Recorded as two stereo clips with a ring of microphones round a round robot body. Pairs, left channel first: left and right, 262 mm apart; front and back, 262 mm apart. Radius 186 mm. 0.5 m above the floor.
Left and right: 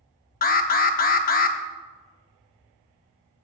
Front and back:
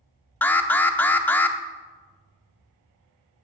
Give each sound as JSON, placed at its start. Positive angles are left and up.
{"t": 0.4, "sound": "an alarm", "azimuth_deg": 80, "distance_m": 0.7}